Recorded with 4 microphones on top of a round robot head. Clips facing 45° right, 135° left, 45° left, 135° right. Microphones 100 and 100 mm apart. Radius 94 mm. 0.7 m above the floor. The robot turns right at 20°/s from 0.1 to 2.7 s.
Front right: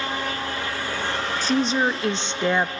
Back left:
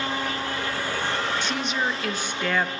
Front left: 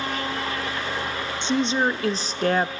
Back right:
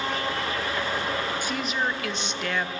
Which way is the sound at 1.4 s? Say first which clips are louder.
Front right 5 dB, front left 6 dB; 10° right.